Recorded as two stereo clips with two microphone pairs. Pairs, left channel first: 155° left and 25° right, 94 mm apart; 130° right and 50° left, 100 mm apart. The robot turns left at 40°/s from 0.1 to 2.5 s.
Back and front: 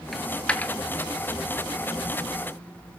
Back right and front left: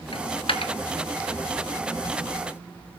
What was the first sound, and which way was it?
A dropped coin, 115° right.